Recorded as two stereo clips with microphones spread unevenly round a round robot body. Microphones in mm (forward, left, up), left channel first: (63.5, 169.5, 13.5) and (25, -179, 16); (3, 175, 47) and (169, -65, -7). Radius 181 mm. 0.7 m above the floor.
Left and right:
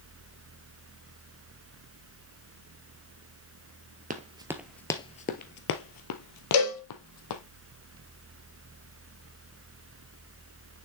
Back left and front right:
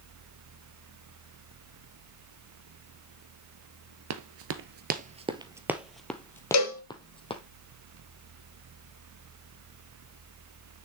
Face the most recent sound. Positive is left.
turn(degrees=100)